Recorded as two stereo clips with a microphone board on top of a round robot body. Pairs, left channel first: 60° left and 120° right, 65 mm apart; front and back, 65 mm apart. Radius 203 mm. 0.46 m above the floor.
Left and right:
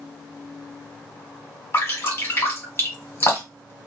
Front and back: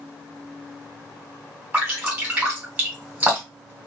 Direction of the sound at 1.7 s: 115° left.